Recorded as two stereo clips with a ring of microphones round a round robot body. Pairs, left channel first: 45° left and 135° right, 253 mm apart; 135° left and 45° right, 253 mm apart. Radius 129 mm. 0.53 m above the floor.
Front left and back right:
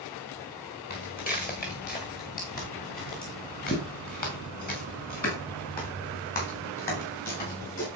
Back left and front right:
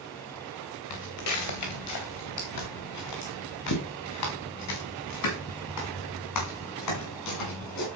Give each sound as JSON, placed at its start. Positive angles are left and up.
{"t": 0.9, "sound": "footsteps", "azimuth_deg": 105, "distance_m": 2.5}